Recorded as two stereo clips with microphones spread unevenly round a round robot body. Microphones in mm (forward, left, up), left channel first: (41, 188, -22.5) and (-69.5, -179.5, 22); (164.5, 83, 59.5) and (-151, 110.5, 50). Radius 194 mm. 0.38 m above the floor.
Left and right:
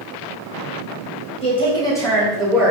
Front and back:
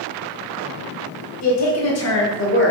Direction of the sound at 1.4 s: 5° left.